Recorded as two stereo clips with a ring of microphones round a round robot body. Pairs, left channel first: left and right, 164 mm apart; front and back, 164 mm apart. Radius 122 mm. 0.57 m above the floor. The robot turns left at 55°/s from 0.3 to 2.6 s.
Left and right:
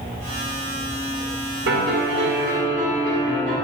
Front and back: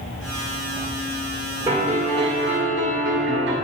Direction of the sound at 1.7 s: 105° right.